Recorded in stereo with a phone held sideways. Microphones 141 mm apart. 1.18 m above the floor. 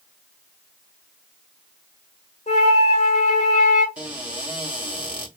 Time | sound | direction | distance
2.5 | a flute | 50° left (ahead or behind) | 1.3 m
4.0 | a cupboard door | 10° right (ahead or behind) | 1.6 m